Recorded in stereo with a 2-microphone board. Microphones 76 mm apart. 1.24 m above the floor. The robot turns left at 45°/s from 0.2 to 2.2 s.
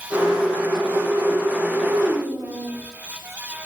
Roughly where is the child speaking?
Right.